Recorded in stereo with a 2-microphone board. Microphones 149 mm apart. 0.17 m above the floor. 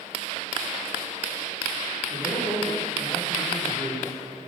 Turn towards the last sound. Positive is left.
turn(degrees=-25)  # may be behind; listen again after turning